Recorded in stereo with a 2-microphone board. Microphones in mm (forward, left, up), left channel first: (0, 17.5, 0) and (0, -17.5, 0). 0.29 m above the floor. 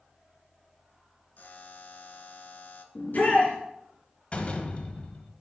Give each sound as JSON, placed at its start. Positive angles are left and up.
{"t": 1.4, "sound": "a buzzer", "side_deg": 50, "distance_m": 0.7}
{"t": 3.0, "sound": "a shout", "side_deg": 45, "distance_m": 3.0}
{"t": 4.3, "sound": "a door slam", "side_deg": 35, "distance_m": 1.0}